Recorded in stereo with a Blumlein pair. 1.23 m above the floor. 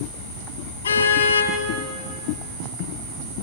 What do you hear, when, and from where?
0.8 s a car horn: 70° left, 5.5 m